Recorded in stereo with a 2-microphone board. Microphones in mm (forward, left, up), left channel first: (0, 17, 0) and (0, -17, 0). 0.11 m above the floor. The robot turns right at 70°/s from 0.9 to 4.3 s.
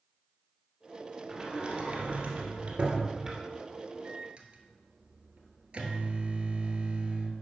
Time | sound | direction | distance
1.3 | a sliding door | 165° right | 2.0 m
4.0 | a microwave | 45° right (ahead or behind) | 1.3 m